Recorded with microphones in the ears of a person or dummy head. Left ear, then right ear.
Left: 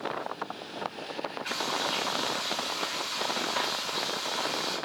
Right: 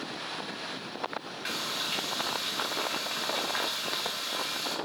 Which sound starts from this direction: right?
Frying, at 1.4 s.